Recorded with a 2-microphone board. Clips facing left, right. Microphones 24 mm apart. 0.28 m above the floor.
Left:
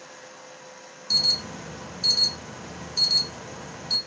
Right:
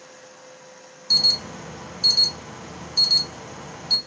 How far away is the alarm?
About 3 m.